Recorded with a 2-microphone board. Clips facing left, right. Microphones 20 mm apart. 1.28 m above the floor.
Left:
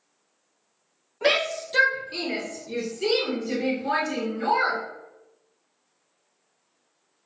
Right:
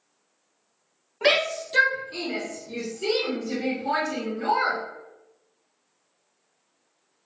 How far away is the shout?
About 0.8 m.